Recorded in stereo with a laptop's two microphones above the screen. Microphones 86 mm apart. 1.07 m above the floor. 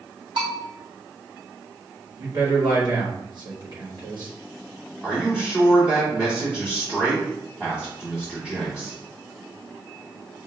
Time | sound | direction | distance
0.4 | a bell | 65° right (ahead or behind) | 1.4 m
2.2 | a man speaking | 55° right (ahead or behind) | 1.2 m
5.0 | a man speaking | 10° right (ahead or behind) | 2 m